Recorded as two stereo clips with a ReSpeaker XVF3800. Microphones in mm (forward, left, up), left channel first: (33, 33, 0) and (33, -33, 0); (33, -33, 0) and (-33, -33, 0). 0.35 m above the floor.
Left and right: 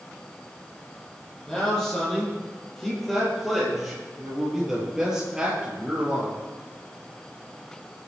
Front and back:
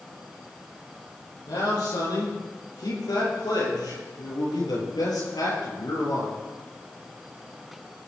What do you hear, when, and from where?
1.5 s a man speaking: 10° left, 8.5 m; by 6.4 s 15° right, 6.5 m